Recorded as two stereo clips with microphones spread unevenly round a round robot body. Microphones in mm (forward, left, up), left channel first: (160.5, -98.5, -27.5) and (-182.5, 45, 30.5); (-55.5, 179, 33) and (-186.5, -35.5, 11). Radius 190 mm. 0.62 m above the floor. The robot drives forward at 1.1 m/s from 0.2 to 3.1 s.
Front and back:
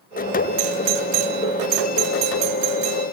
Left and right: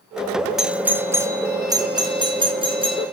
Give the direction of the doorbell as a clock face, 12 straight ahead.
7 o'clock.